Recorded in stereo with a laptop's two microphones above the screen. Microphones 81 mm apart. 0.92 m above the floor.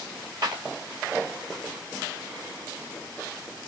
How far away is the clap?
About 1.9 m.